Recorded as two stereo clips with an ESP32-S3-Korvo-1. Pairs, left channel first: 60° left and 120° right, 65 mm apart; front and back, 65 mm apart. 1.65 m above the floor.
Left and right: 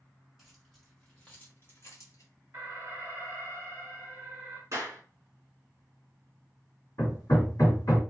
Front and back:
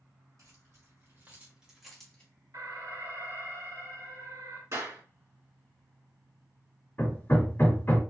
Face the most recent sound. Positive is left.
turn(degrees=55)